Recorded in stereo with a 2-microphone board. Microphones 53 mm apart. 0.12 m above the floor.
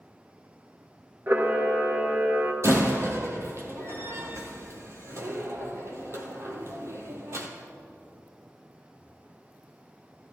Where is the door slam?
60° right (ahead or behind), 2.5 m.